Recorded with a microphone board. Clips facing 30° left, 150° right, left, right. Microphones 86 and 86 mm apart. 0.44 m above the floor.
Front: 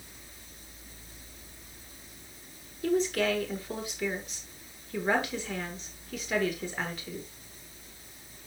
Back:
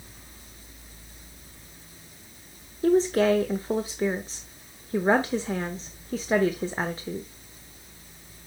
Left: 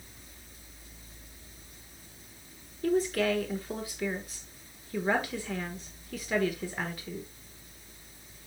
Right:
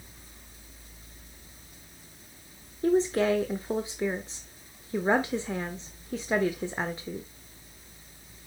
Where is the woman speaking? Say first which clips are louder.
Back 7 dB, right 3 dB; 130° right, 0.9 m.